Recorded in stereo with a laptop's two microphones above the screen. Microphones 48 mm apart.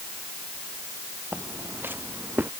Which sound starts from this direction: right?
Footsteps, at 1.3 s.